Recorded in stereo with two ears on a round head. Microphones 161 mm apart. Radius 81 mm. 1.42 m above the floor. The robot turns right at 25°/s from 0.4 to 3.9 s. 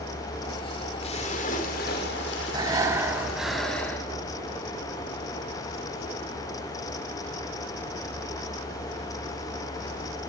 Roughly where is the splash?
Ahead left.